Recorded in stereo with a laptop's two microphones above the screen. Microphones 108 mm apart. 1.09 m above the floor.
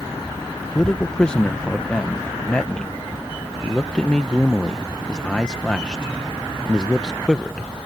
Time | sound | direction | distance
0.8 | a man speaking | 10° left (ahead or behind) | ?